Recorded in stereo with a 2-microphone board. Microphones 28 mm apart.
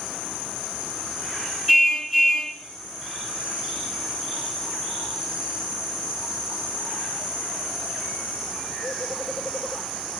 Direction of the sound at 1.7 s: 5° right (ahead or behind).